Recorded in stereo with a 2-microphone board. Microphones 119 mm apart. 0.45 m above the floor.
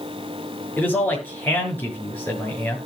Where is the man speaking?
15° left (ahead or behind), 6.5 m.